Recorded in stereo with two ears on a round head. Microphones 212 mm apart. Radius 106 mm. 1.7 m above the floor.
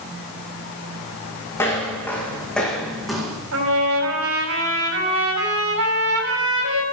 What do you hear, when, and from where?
1.6 s footsteps: 10° left (ahead or behind), 5.5 m; by 3.4 s 5° right (ahead or behind), 5.5 m
3.5 s a trumpet: 70° right (ahead or behind), 6 m